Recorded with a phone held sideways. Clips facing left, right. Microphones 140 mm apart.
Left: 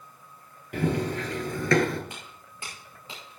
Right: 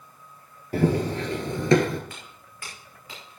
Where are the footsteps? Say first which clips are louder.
Left 1 dB; 20° left (ahead or behind), 5 m; by 3.4 s 25° left (ahead or behind), 5.5 m.